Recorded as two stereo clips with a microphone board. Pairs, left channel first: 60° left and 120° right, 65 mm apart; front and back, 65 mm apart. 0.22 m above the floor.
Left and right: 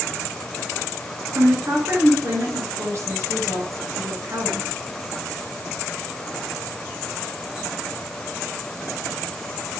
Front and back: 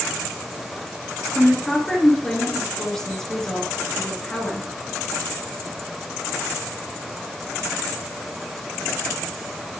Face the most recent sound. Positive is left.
turn(degrees=-80)